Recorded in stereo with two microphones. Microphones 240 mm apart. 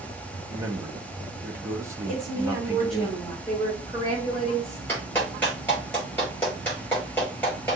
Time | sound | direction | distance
0.5 | a man speaking | 10° right (ahead or behind) | 0.9 m
2.1 | a woman speaking | centre (ahead or behind) | 3.5 m
3.5 | a woman speaking | 15° right (ahead or behind) | 4 m
4.9 | a clap | 5° left (ahead or behind) | 4 m